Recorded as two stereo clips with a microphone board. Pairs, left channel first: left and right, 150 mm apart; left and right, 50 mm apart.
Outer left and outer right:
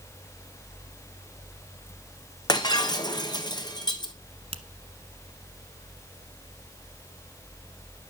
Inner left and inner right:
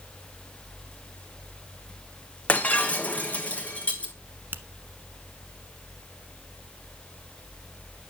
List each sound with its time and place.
2.5 s breaking glass: 30° left (ahead or behind), 1.3 m
4.5 s a finger snap: 40° right (ahead or behind), 1.1 m